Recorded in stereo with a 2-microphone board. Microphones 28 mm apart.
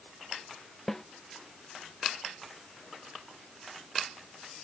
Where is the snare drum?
10° left (ahead or behind).